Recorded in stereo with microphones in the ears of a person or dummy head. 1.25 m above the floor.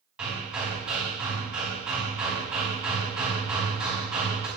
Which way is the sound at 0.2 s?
5° right (ahead or behind).